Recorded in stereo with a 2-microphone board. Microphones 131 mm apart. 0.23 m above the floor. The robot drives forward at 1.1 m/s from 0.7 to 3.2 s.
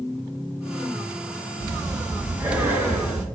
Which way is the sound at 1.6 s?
25° right (ahead or behind).